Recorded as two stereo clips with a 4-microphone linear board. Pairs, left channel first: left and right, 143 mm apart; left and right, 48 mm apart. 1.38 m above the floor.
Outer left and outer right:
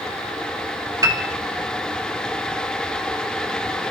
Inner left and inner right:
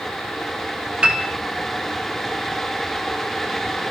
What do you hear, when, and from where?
1.0 s a piano: 25° right (ahead or behind), 1.9 m